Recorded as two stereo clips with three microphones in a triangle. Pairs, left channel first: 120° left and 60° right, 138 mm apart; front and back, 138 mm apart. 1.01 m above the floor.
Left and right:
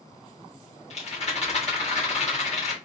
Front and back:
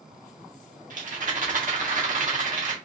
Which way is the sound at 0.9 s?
160° left.